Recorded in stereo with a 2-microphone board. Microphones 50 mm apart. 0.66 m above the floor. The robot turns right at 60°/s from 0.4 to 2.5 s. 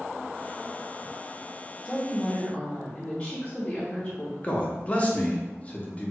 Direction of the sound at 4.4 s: 25° left (ahead or behind).